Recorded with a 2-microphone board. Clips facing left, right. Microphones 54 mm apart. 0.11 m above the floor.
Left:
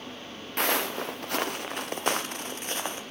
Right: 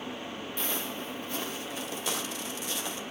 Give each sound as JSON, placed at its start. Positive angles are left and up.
{"t": 0.6, "sound": "footsteps", "side_deg": 65, "distance_m": 0.6}